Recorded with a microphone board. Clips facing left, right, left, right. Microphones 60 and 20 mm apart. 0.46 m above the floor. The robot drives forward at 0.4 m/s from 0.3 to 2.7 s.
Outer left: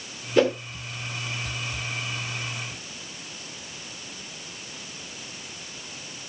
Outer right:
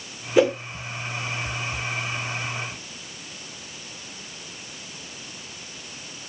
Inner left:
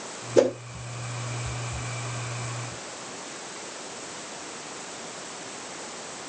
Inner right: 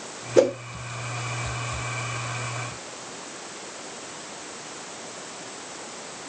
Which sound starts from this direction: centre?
A whoosh, at 0.4 s.